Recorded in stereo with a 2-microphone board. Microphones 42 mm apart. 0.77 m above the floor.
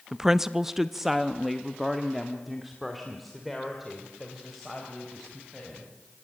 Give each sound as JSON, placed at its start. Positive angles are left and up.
{"t": 0.1, "sound": "a woman speaking", "side_deg": -10, "distance_m": 0.5}